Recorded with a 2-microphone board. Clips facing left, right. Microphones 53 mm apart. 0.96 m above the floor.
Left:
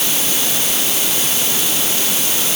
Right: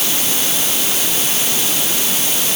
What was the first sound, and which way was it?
Only background noise.